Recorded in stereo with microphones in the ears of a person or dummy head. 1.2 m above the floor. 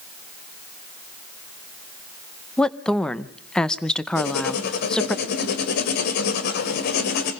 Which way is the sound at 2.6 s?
Centre (ahead or behind).